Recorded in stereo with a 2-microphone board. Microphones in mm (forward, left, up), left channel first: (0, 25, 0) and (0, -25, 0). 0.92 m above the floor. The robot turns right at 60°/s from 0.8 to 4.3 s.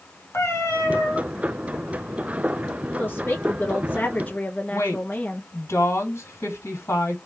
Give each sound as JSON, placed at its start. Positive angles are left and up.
{"t": 0.3, "sound": "a cat meowing", "side_deg": 65, "distance_m": 1.9}
{"t": 3.0, "sound": "a woman speaking", "azimuth_deg": 60, "distance_m": 0.5}
{"t": 4.7, "sound": "a woman speaking", "side_deg": 60, "distance_m": 1.7}